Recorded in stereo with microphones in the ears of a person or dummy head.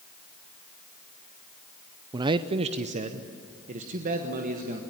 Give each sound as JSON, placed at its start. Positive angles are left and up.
{"t": 2.1, "sound": "a man speaking", "side_deg": -20, "distance_m": 0.5}